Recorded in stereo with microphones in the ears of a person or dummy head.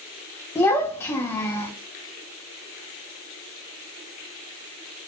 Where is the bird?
No bird in this recording.